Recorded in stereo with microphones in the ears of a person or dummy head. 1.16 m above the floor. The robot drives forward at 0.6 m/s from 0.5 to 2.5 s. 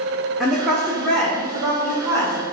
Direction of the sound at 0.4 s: Centre (ahead or behind).